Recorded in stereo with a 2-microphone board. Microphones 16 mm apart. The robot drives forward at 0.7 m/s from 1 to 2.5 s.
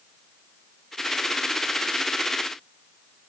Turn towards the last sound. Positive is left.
No sound to turn to.